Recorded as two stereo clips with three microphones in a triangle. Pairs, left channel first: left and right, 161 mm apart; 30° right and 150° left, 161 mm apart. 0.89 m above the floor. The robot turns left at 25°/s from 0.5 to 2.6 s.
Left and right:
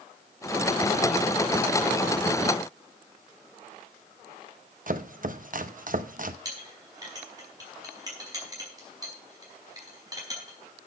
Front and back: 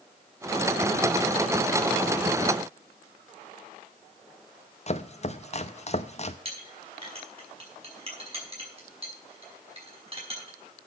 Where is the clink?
155° right, 5 m.